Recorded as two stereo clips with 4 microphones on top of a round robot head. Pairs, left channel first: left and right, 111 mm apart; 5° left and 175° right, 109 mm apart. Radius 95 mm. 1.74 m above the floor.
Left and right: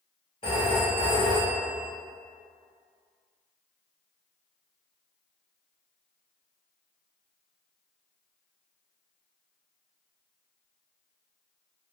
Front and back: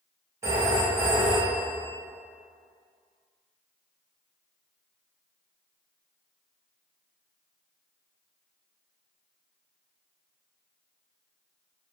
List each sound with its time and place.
0.4 s a phone ringing: 135° left, 0.8 m